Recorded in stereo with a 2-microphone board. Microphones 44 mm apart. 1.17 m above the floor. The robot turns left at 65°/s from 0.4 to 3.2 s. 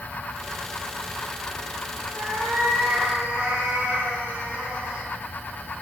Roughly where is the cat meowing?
Right.